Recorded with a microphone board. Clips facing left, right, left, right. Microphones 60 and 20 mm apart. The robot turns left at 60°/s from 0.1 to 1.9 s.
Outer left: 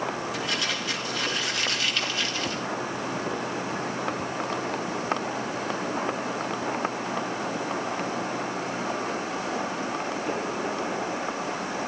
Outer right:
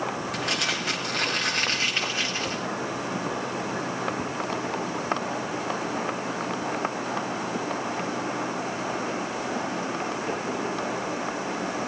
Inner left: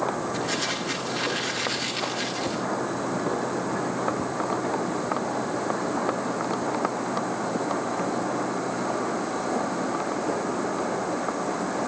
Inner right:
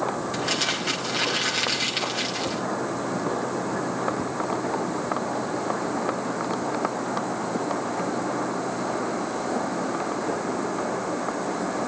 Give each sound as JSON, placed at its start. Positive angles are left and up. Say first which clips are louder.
{"t": 0.3, "sound": "crumpling", "louder": "outer right 1 dB, inner right 2 dB", "azimuth_deg": -60, "distance_m": 5.0}